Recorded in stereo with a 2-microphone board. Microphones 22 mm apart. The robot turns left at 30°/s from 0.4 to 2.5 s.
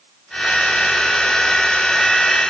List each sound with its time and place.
Only background noise.